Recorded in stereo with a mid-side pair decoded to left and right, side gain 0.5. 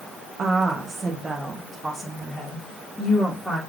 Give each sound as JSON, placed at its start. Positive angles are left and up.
{"t": 0.4, "sound": "a woman speaking", "azimuth_deg": -45, "distance_m": 1.0}